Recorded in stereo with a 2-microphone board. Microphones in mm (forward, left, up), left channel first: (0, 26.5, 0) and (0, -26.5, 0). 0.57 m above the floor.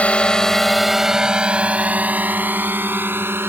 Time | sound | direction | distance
0.0 | a drone | 25° left (ahead or behind) | ?